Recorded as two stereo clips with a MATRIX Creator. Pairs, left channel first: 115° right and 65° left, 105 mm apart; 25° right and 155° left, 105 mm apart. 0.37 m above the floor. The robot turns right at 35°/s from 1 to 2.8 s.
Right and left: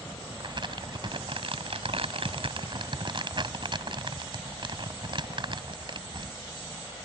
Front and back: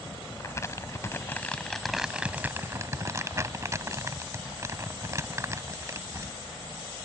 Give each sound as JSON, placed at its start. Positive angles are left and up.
{"t": 0.4, "sound": "crumpling", "azimuth_deg": 35}